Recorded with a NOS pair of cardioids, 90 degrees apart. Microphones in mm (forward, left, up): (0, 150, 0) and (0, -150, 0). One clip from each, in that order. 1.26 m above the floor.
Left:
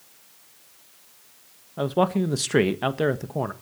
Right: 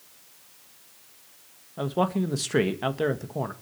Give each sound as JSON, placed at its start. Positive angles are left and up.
{"t": 1.8, "sound": "a man speaking", "azimuth_deg": 20, "distance_m": 1.5}